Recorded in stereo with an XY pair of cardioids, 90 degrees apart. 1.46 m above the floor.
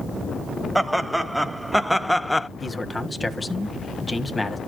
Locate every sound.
0.8 s laughter: 15° right, 2 m; by 2.5 s 15° left, 0.5 m
2.6 s a man speaking: 20° left, 1.5 m